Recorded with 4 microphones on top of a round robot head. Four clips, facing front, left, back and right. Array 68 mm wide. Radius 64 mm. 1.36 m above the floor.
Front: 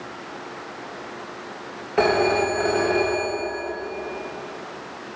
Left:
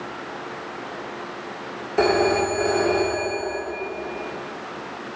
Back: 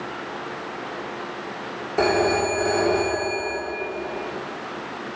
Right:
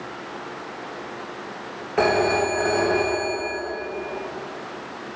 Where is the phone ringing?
40° right, 1.3 m.